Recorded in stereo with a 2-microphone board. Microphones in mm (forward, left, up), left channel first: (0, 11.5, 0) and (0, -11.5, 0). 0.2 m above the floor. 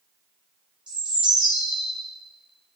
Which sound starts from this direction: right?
A bird, at 0.9 s.